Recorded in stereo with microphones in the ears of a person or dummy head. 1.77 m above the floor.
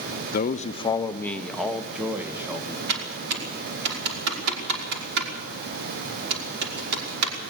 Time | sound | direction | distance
0.3 | a man speaking | 50° left (ahead or behind) | 1.0 m
2.9 | typing on a keyboard | 55° right (ahead or behind) | 5.5 m